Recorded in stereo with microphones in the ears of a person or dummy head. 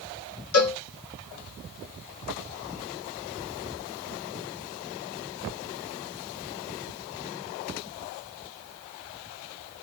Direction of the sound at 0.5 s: 85° left.